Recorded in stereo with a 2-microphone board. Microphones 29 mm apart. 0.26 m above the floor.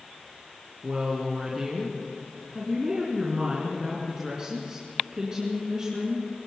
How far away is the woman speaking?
About 3.5 m.